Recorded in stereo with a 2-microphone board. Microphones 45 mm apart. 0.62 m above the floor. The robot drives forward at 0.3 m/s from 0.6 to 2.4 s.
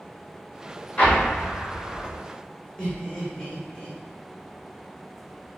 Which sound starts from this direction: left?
An explosion, at 1.0 s.